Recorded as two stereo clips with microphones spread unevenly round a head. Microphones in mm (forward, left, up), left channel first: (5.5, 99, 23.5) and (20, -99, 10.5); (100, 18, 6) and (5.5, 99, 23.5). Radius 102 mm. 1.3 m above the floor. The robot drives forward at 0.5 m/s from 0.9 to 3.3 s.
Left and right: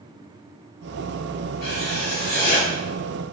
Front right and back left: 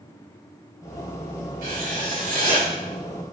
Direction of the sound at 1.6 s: 140° left.